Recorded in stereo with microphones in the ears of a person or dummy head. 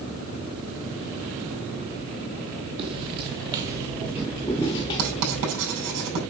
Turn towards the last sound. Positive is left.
turn(degrees=-75)  # may be behind; listen again after turning